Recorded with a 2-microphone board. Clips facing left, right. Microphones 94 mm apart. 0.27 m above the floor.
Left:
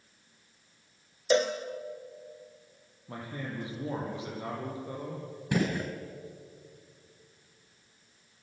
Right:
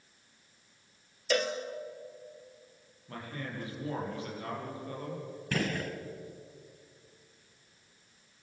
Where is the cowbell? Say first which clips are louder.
Left 5 dB; 25° left (ahead or behind), 1.8 m.